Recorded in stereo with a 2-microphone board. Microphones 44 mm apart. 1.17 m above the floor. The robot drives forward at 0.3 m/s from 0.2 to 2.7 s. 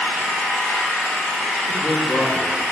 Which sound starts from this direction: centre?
A man speaking, at 1.7 s.